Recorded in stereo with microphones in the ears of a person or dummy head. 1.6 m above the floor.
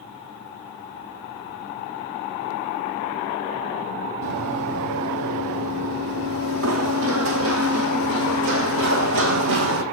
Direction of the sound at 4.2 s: 65° right (ahead or behind).